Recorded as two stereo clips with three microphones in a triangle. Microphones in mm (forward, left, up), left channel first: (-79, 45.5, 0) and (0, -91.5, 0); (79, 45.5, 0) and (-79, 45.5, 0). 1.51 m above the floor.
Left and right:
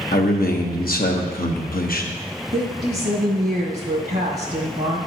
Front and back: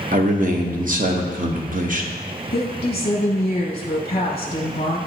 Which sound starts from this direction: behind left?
A man speaking, at 0.1 s.